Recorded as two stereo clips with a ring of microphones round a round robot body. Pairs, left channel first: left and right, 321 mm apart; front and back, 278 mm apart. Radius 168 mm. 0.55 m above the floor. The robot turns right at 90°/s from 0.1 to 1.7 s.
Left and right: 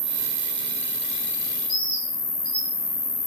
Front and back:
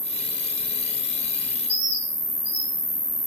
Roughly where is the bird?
Left.